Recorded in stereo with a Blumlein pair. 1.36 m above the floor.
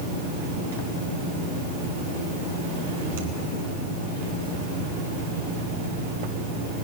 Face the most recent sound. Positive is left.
turn(degrees=-55)